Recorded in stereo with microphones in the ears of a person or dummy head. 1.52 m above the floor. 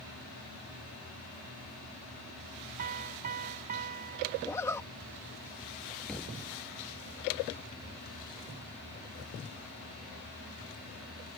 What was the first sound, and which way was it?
A piano, 40° right (ahead or behind).